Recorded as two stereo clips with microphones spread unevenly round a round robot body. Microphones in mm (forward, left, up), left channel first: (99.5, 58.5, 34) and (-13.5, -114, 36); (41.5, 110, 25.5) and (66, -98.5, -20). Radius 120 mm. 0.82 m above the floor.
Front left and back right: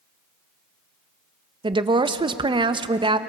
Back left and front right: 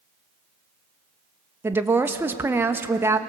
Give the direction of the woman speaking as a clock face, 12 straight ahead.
3 o'clock.